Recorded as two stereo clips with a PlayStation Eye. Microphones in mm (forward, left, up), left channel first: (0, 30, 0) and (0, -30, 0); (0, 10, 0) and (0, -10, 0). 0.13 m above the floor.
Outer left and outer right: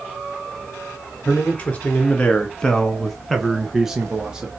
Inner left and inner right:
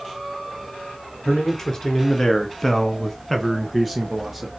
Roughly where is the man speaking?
Left.